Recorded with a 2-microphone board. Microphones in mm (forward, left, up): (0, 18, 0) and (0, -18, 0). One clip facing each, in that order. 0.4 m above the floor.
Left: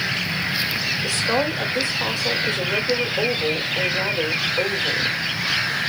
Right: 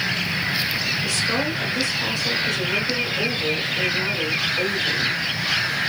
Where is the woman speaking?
30° left (ahead or behind), 1.4 m.